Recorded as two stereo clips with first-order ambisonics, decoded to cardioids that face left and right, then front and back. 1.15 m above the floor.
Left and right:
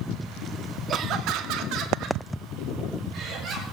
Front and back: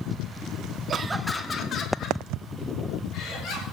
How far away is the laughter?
About 0.7 m.